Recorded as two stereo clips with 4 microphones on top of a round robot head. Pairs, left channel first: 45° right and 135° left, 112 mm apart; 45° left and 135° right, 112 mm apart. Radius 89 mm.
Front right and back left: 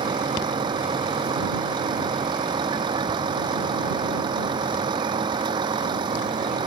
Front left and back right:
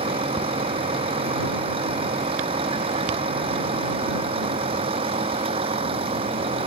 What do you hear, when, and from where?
0.0 s a vehicle: 175° right